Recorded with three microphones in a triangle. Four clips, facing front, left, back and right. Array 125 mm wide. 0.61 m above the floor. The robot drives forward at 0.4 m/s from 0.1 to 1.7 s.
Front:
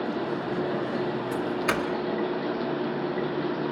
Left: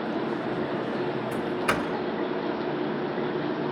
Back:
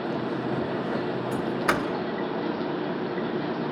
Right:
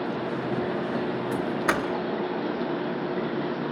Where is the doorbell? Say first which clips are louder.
Right 2 dB, back 3 dB; 115° right, 1.8 m; by 1.9 s 125° right, 1.8 m.